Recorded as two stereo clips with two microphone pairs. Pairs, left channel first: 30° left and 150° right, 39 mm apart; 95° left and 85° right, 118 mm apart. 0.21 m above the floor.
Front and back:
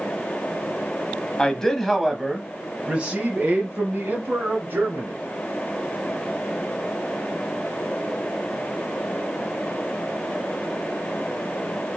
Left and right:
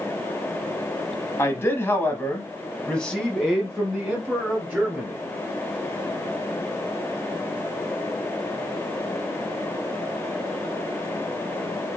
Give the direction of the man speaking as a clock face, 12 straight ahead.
10 o'clock.